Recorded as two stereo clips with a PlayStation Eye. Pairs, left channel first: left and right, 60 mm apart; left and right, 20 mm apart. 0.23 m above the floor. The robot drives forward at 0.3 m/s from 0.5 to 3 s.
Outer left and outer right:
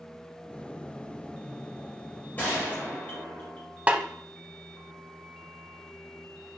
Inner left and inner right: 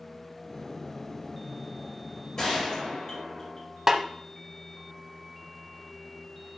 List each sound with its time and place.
2.4 s a gunshot: 30° left (ahead or behind), 4 m
3.9 s a snare drum: 20° right (ahead or behind), 0.7 m